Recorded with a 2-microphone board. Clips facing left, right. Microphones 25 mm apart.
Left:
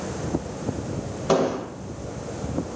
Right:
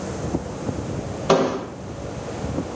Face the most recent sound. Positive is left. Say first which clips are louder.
# right 3 dB
turn(degrees=-35)  # may be behind; listen again after turning